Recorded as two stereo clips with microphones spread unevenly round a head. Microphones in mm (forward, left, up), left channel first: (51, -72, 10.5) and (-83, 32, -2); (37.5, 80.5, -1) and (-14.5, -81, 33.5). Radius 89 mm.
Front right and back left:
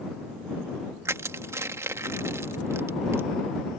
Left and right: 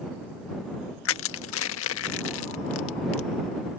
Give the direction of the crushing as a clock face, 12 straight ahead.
10 o'clock.